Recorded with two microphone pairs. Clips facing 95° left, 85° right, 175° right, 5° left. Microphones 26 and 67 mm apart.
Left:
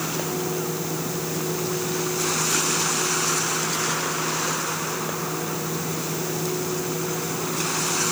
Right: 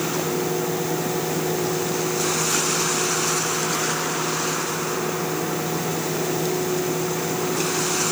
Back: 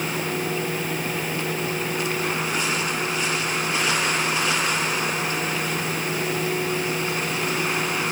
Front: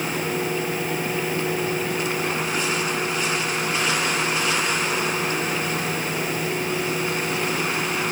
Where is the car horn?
I don't hear a car horn.